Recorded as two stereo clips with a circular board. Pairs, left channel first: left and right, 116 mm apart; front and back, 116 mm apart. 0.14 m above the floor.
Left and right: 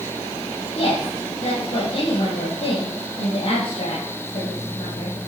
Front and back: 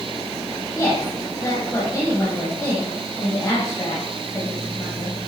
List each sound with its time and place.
0.8 s a woman speaking: 60° left, 4.5 m